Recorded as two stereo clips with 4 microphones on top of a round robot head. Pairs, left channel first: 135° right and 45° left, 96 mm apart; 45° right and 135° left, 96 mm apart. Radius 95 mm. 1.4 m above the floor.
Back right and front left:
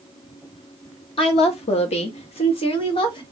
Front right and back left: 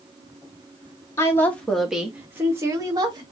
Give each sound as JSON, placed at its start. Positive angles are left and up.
{"t": 1.2, "sound": "a woman speaking", "azimuth_deg": -105, "distance_m": 1.3}